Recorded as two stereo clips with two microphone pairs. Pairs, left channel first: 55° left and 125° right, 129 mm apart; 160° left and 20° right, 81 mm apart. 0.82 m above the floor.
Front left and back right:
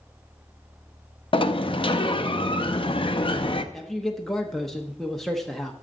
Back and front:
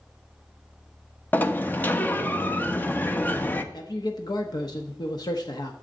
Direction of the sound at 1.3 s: 90° left.